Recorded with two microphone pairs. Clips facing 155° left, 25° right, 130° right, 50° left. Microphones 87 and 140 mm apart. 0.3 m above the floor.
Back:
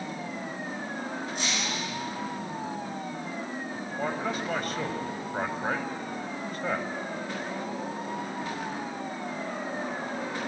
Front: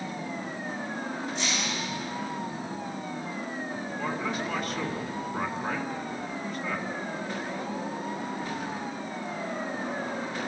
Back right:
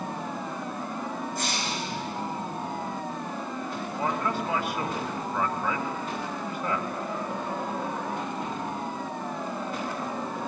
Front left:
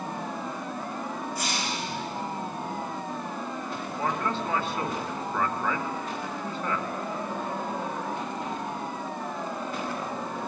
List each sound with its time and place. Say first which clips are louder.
1.4 s breaking glass: front 1 dB, even; 170° right, 10 m
4.0 s a man speaking: back 1 dB, back right 1 dB; 160° left, 2 m